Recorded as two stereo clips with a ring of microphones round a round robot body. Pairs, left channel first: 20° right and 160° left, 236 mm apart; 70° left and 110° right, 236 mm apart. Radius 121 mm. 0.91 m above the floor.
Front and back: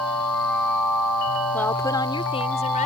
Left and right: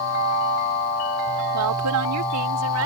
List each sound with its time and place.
1.5 s a woman speaking: 105° right; by 2.9 s 85° right